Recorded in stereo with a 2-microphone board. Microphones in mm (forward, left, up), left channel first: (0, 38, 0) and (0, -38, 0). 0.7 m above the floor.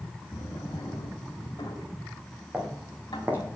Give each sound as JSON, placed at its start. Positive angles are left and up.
{"t": 0.3, "sound": "a drawer", "side_deg": 85, "distance_m": 1.9}
{"t": 2.5, "sound": "footsteps", "side_deg": -15, "distance_m": 3.0}